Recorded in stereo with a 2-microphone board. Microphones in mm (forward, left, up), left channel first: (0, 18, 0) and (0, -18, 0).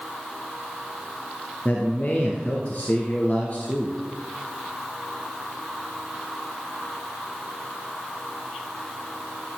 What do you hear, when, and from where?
1.6 s a man speaking: 40° left (ahead or behind), 2.5 m